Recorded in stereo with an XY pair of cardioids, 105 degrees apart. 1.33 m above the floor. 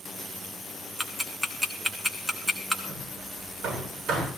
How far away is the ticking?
About 1.9 m.